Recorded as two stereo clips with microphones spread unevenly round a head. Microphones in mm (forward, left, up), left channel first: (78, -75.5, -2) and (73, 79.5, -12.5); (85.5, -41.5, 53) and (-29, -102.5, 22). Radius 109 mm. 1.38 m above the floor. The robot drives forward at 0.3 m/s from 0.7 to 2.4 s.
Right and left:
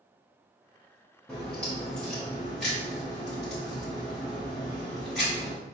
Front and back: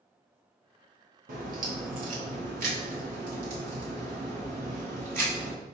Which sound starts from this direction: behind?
A crack, at 1.3 s.